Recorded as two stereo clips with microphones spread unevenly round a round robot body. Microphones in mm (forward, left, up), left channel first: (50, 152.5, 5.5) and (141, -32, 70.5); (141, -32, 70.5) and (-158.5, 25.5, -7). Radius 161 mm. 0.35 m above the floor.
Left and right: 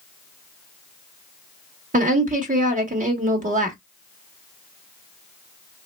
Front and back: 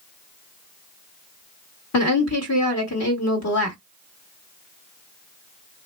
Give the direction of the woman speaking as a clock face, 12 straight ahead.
12 o'clock.